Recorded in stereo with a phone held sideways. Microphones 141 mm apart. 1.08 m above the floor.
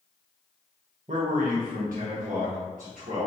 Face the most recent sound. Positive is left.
turn(degrees=-60)  # may be behind; listen again after turning